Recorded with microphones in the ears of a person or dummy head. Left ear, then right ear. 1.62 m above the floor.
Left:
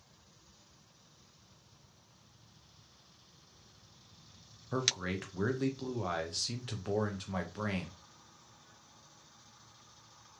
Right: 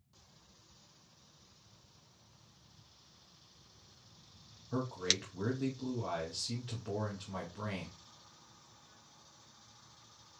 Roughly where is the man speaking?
Left.